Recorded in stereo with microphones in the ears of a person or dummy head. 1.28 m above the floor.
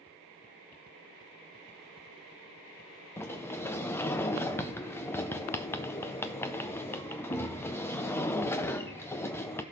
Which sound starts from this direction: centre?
A sliding door, at 3.2 s.